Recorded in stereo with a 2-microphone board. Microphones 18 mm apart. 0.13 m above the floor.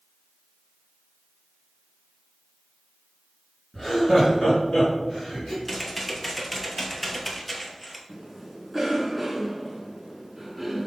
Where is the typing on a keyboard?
10° left (ahead or behind), 0.7 m.